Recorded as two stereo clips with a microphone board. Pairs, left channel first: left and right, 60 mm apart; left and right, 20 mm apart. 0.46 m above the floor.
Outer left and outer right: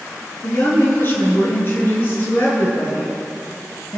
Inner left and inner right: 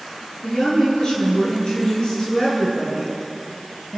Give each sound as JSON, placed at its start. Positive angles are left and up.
{"t": 0.4, "sound": "a woman speaking", "side_deg": 35, "distance_m": 9.0}